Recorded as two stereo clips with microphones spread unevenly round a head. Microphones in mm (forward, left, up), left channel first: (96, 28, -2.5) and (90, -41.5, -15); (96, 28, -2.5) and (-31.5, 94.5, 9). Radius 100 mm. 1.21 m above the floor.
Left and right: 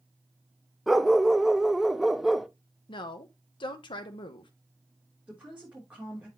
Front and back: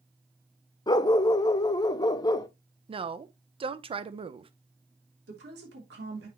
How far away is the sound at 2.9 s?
About 0.9 m.